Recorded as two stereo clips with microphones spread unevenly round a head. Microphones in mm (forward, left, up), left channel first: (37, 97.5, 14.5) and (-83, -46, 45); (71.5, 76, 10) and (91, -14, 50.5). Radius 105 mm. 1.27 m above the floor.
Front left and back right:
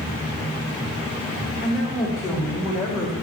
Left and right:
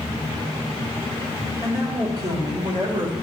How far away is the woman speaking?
About 2 m.